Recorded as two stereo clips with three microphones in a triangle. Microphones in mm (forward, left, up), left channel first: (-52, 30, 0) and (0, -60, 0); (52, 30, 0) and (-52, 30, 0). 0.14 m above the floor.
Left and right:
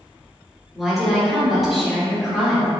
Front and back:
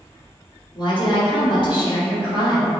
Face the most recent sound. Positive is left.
turn(degrees=30)